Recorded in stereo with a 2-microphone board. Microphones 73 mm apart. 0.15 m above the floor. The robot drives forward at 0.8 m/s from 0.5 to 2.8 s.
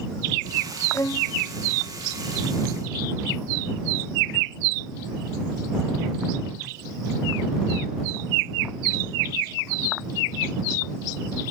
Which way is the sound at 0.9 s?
40° left (ahead or behind).